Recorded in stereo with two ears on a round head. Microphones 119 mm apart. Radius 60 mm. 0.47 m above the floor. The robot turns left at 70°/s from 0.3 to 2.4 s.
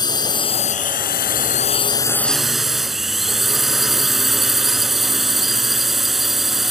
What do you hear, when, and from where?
0.0 s a drone: 145° left; by 6.7 s straight ahead